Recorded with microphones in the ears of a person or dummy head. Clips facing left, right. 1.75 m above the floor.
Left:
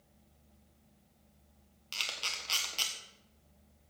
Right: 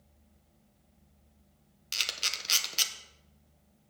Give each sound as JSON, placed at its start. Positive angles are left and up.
{"t": 1.9, "sound": "a camera shutter", "side_deg": -30, "distance_m": 1.2}